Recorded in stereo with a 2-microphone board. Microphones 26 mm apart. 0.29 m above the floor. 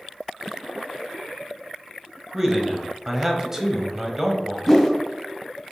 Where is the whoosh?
Centre (ahead or behind), 1.5 m.